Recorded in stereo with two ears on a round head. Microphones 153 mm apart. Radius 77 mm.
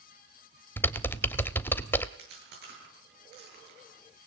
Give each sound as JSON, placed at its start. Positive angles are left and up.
{"t": 0.8, "sound": "typing on a keyboard", "side_deg": 10, "distance_m": 0.7}
{"t": 2.2, "sound": "chewing", "side_deg": -65, "distance_m": 10.0}